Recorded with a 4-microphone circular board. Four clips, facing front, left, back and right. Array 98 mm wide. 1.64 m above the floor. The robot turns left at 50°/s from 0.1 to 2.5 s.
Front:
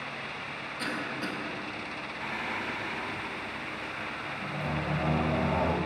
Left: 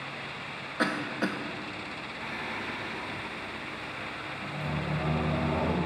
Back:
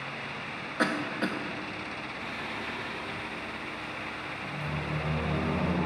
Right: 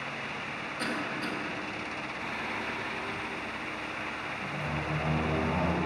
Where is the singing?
10° left, 1.8 m; by 5.8 s 5° right, 1.8 m.